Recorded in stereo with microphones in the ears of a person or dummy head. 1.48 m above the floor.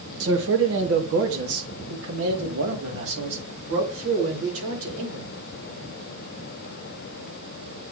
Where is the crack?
No crack in this recording.